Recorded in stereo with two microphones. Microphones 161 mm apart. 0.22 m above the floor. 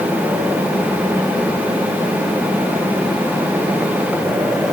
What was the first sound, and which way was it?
Only background noise.